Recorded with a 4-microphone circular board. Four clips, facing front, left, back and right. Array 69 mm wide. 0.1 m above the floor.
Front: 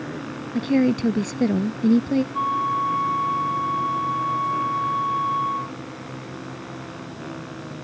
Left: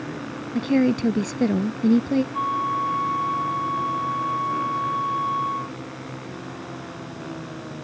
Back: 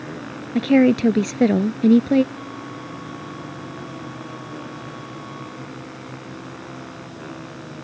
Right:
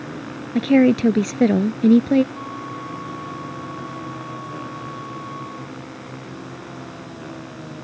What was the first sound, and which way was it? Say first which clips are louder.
A woman speaking: right 5 dB, back 5 dB; 135° right.